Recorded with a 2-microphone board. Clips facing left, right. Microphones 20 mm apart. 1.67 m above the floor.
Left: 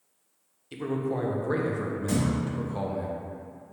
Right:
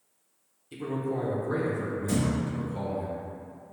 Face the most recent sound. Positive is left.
turn(degrees=40)  # may be behind; listen again after turning